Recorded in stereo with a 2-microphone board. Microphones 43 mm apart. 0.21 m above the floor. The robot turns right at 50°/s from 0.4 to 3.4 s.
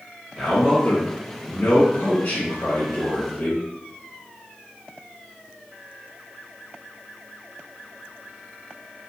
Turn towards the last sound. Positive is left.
turn(degrees=140)